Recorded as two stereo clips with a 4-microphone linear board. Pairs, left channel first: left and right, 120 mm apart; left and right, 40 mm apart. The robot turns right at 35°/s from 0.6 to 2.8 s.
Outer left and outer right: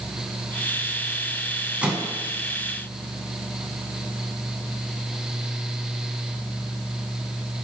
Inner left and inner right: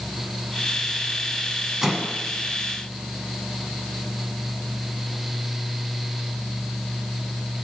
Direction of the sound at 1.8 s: 10° right (ahead or behind).